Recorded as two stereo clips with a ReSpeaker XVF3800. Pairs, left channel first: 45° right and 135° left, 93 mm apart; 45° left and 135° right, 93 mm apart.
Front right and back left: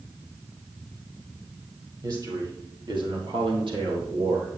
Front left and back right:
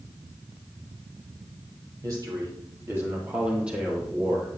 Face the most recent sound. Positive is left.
turn(degrees=130)